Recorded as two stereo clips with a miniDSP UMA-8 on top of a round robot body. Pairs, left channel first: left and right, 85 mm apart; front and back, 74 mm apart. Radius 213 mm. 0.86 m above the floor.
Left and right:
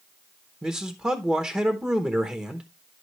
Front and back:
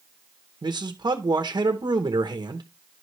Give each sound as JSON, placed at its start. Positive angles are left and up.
{"t": 0.6, "sound": "a man speaking", "azimuth_deg": -165, "distance_m": 1.2}